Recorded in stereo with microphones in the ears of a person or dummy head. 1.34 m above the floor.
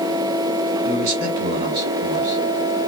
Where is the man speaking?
55° right (ahead or behind), 1.8 m.